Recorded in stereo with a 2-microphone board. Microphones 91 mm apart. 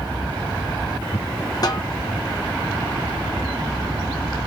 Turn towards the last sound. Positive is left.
turn(degrees=45)  # may be behind; listen again after turning